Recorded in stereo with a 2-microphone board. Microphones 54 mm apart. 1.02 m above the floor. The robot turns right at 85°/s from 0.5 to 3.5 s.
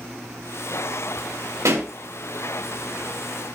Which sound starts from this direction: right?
A pop, at 1.6 s.